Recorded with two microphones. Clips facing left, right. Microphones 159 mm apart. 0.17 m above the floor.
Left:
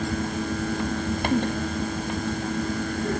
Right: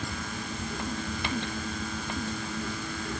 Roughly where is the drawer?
I don't hear a drawer.